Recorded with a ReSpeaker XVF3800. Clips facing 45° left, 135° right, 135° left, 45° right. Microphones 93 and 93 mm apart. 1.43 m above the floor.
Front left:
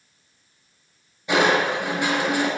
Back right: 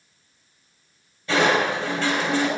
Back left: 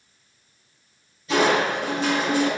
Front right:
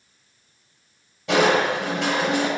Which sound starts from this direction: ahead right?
Crushing, at 1.3 s.